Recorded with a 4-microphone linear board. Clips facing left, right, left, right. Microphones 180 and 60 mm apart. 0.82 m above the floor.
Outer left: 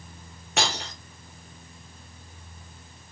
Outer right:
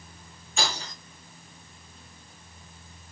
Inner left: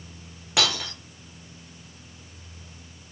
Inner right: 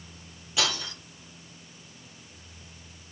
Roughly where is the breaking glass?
Left.